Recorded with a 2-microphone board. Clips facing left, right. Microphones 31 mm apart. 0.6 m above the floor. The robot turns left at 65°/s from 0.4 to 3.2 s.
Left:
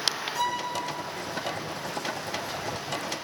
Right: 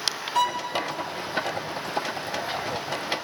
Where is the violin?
85° right, 1.3 m; by 0.7 s 75° right (ahead or behind), 1.3 m.